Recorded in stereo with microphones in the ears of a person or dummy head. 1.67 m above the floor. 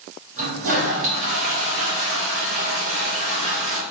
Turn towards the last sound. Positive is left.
turn(degrees=-40)  # may be behind; listen again after turning